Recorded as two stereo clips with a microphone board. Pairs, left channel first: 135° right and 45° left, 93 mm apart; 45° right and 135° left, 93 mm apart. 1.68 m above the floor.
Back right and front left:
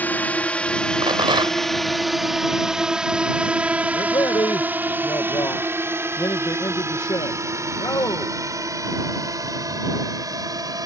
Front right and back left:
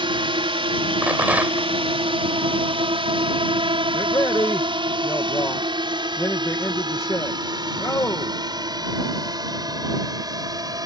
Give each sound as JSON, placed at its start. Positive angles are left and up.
{"t": 0.0, "sound": "a drone", "azimuth_deg": 155}
{"t": 1.0, "sound": "a rattle", "azimuth_deg": 65}
{"t": 3.9, "sound": "a man speaking", "azimuth_deg": -100}